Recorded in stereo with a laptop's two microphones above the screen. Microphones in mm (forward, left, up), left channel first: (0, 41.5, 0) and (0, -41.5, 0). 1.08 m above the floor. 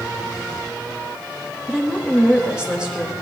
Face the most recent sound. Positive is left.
turn(degrees=-10)  # may be behind; listen again after turning